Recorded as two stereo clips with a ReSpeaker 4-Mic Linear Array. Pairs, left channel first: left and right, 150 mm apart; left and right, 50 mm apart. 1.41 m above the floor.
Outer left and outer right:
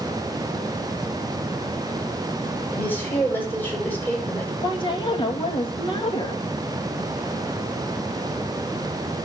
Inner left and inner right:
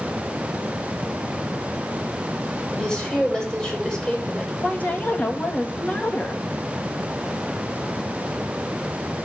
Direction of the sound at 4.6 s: 35° left (ahead or behind).